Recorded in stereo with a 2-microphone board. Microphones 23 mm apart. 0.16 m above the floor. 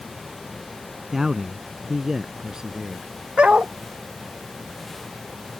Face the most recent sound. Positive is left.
turn(degrees=-55)  # may be behind; listen again after turning